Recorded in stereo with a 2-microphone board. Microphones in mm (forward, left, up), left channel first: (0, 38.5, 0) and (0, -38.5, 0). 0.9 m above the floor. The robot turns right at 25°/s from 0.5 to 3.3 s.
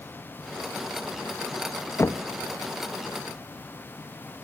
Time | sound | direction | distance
2.0 | knocking | 35° left (ahead or behind) | 0.6 m